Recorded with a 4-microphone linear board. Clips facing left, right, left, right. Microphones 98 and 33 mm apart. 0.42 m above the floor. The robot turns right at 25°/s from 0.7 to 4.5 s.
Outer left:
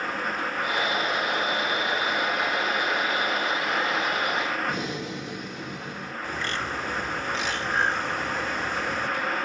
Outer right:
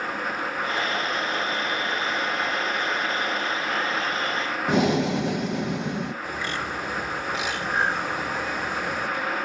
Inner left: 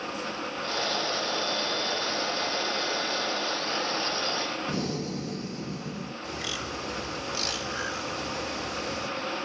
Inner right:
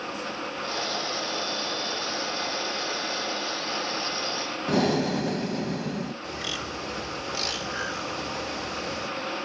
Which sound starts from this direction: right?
Breathing, at 4.7 s.